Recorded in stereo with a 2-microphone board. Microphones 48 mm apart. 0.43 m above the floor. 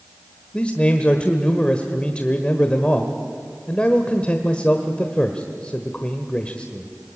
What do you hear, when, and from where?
0.5 s a man speaking: 25° left (ahead or behind), 1.3 m